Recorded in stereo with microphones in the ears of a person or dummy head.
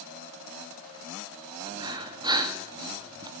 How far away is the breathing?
About 2.5 m.